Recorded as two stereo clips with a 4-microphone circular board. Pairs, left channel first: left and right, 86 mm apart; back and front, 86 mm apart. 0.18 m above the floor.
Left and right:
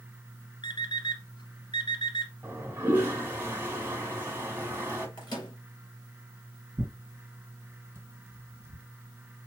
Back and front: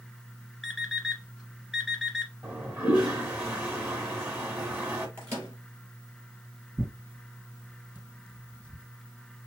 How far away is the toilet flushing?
About 1.5 m.